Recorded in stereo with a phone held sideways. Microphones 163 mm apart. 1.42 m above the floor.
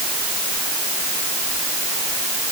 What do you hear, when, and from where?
Only background noise.